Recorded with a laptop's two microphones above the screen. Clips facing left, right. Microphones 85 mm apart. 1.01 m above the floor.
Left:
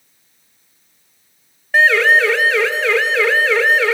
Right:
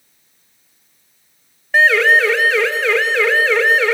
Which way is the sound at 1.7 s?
Centre (ahead or behind).